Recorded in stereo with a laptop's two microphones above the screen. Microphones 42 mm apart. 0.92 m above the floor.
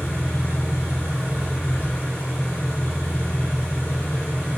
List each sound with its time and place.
0.0 s an engine running: 75° left (ahead or behind), 2.5 m